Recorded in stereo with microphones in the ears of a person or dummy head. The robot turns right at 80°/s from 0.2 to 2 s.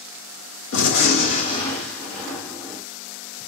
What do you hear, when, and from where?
0.7 s a gunshot: 90° left, 1.1 m; by 2.8 s 170° right, 1.1 m